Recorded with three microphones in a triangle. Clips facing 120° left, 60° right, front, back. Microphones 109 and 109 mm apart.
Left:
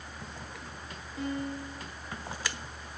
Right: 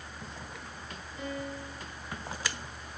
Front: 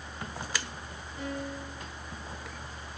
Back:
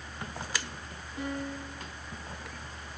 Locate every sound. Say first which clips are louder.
1.2 s a piano: left 4 dB, back 1 dB; 115° left, 8 m